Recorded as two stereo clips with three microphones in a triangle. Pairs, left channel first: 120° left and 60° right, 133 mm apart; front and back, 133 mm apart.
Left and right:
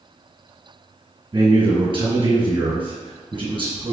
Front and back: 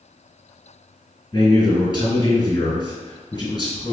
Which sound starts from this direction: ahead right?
A man speaking, at 1.3 s.